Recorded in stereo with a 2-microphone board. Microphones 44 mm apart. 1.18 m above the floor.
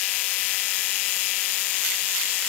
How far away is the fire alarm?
No fire alarm in this recording.